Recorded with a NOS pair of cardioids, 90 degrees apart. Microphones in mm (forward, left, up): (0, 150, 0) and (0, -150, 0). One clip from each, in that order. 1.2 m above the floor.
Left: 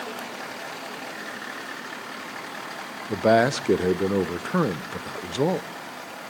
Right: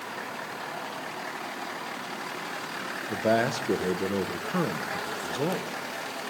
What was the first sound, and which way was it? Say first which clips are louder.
A man speaking: left 6 dB; 30° left.